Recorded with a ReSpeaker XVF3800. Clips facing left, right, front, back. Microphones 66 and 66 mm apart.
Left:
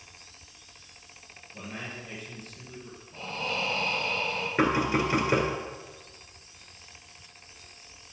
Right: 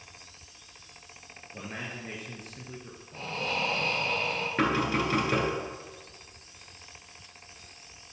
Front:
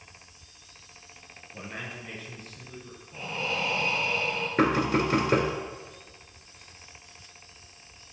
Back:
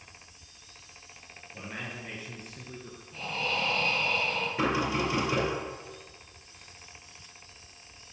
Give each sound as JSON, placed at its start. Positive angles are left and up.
{"t": 1.5, "sound": "a man speaking", "azimuth_deg": -75, "distance_m": 2.0}
{"t": 3.1, "sound": "breathing", "azimuth_deg": -70, "distance_m": 2.5}
{"t": 4.6, "sound": "knocking", "azimuth_deg": 10, "distance_m": 1.7}